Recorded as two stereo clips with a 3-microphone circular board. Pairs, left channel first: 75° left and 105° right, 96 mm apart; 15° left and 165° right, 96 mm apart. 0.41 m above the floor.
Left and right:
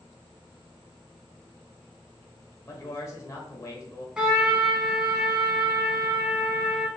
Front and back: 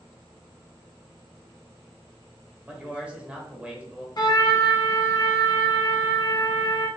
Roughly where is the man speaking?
Behind left.